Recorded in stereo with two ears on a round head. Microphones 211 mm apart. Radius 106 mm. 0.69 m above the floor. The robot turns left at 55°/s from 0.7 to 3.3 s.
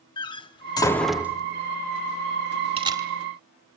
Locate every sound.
0.2 s a door slam: 20° left (ahead or behind), 0.8 m; by 1.4 s 15° right (ahead or behind), 0.8 m
2.8 s a camera shutter: 25° right (ahead or behind), 1.6 m; by 3.1 s 10° right (ahead or behind), 1.6 m